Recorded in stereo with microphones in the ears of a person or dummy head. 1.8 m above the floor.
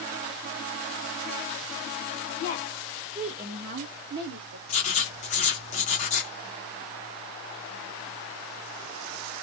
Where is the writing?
40° left (ahead or behind), 0.7 m.